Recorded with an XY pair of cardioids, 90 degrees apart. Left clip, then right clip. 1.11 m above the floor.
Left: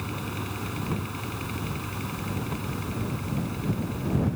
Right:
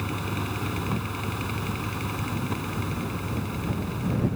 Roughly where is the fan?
Ahead right.